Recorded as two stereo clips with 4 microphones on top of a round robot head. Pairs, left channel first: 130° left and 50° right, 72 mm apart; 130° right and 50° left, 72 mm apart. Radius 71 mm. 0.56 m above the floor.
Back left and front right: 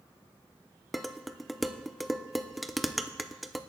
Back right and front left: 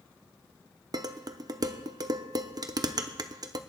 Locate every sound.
0.9 s dishes clattering: 35° left, 0.8 m